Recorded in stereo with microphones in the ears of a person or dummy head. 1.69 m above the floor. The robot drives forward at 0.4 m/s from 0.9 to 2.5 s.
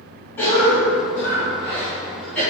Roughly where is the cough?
Centre.